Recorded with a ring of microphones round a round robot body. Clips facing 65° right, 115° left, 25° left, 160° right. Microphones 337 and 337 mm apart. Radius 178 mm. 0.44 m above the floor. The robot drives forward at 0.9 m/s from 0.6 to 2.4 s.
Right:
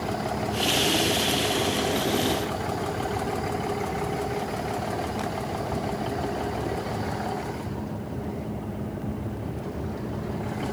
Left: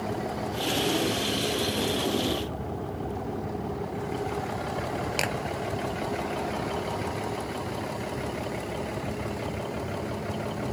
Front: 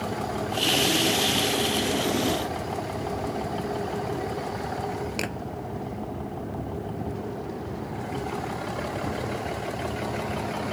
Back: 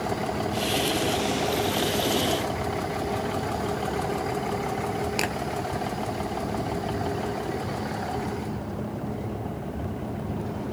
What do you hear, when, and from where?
5.2 s a clap: 120° left